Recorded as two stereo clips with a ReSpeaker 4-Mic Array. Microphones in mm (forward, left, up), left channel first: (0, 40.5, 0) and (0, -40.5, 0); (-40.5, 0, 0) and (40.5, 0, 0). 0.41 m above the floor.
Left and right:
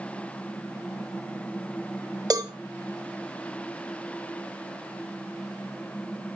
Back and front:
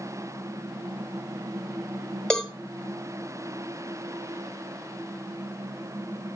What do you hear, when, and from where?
2.3 s a cowbell: 105° right, 0.9 m